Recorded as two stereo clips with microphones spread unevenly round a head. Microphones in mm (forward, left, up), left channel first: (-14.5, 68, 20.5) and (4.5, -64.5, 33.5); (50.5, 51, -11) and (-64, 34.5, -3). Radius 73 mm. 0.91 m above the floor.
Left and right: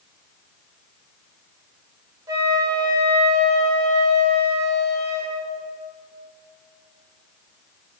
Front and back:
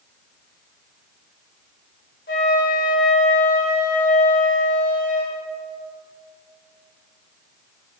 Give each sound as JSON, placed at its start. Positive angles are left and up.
{"t": 2.3, "sound": "a flute", "azimuth_deg": -15, "distance_m": 2.0}